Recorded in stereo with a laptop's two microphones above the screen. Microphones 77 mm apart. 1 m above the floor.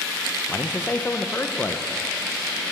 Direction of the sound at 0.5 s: 25° left (ahead or behind).